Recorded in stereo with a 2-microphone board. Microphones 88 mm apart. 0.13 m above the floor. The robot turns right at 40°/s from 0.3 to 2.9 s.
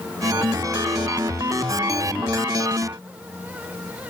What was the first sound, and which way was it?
Only background noise.